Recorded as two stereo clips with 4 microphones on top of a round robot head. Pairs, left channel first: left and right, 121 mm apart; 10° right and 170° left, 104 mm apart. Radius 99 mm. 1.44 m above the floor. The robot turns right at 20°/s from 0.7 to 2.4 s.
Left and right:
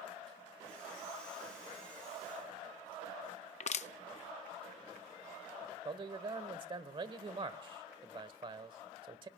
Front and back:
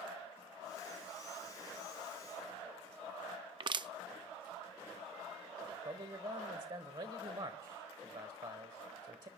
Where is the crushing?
120° left, 0.5 m.